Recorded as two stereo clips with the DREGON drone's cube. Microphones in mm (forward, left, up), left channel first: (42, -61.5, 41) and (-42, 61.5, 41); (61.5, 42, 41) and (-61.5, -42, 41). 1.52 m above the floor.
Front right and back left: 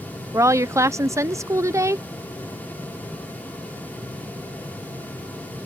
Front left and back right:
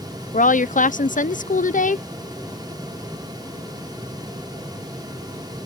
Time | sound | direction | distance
0.3 | a woman speaking | 55° left | ?